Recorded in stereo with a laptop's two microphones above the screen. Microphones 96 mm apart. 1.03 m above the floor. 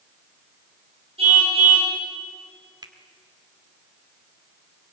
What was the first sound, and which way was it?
A car horn, 85° right.